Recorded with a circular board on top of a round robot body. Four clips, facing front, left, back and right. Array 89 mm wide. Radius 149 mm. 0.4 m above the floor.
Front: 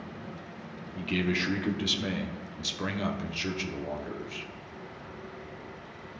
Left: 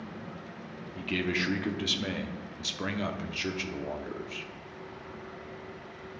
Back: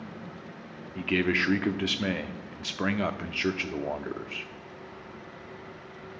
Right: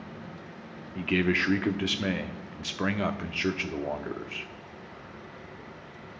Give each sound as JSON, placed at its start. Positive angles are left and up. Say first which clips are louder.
{"t": 0.9, "sound": "a man speaking", "louder": "right 5 dB, back 3 dB", "azimuth_deg": -140, "distance_m": 1.1}